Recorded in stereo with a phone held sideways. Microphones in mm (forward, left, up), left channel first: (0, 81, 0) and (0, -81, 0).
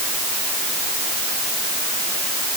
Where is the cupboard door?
I don't hear a cupboard door.